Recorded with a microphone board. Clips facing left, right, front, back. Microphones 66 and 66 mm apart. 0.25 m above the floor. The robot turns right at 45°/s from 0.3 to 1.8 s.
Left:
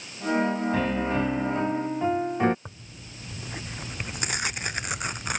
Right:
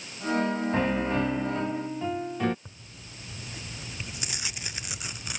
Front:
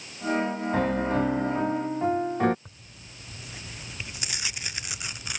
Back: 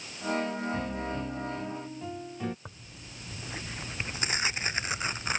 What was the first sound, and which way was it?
A piano, 20° right.